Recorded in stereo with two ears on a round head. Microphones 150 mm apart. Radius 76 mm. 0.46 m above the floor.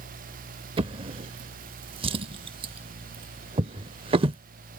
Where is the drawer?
35° right (ahead or behind).